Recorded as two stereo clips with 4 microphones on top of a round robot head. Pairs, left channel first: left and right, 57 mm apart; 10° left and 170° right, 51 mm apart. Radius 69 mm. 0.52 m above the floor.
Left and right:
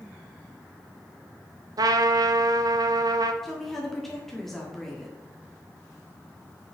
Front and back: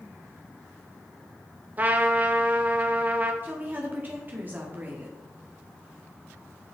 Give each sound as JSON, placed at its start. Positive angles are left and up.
{"t": 1.8, "sound": "a trumpet", "azimuth_deg": -105, "distance_m": 0.5}
{"t": 3.4, "sound": "a woman speaking", "azimuth_deg": 175, "distance_m": 1.5}